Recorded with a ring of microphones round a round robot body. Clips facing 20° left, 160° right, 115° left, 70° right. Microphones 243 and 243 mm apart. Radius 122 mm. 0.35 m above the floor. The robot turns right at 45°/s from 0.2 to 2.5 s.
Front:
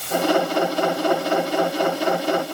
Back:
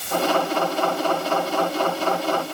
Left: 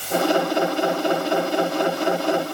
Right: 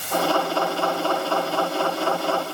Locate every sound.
Only background noise.